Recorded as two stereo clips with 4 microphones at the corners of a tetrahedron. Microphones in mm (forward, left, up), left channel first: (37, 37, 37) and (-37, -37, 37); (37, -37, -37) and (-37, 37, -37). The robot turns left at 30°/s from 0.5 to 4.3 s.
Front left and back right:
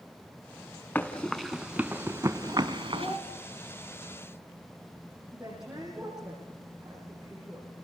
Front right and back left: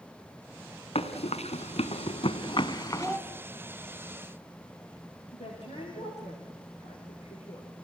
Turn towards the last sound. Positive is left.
turn(degrees=-50)